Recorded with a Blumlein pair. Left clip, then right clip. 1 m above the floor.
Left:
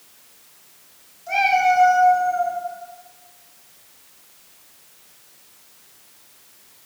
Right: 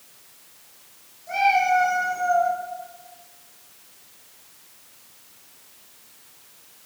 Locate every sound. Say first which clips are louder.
1.3 s a cat meowing: left 2 dB; 45° left, 1.2 m; by 2.5 s 60° right, 0.7 m